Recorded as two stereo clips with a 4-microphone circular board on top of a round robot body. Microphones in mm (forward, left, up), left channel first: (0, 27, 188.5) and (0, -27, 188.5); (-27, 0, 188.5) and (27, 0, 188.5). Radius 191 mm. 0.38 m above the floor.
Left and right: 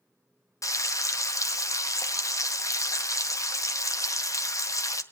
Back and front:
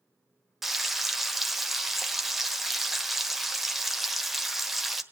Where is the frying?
85° left, 1.4 m.